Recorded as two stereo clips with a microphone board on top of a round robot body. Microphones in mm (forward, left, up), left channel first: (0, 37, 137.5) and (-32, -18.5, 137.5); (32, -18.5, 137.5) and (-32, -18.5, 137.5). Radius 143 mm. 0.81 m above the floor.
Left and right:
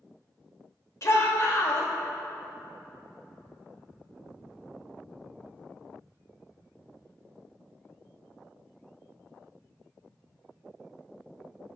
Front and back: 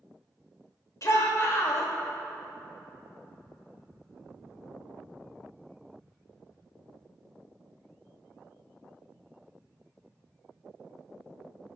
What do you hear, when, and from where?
1.0 s a shout: 30° left, 2.5 m